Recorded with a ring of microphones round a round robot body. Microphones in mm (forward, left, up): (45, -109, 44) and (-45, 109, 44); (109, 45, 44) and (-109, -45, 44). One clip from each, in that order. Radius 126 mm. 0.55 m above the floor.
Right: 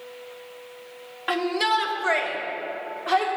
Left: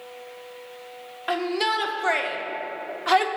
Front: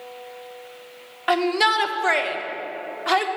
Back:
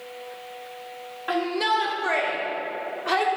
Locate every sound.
1.3 s a shout: 15° left, 1.2 m; by 3.3 s 85° left, 1.1 m